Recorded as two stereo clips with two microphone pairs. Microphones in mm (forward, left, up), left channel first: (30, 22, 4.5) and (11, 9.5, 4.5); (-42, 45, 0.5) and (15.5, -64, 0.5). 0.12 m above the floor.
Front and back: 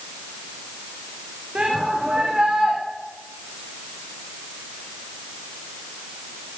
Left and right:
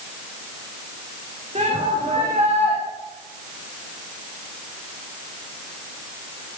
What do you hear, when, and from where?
1.6 s a shout: 90° right, 7 m